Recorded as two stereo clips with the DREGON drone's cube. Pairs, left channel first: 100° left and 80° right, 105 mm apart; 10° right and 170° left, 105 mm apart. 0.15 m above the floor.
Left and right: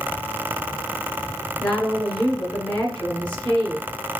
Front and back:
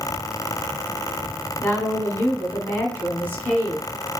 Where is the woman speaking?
35° left, 1.6 m.